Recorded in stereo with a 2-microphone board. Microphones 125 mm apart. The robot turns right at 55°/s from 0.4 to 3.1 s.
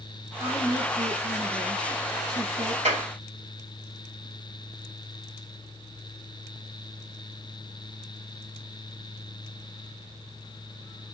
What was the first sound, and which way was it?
A woman speaking, 165° right.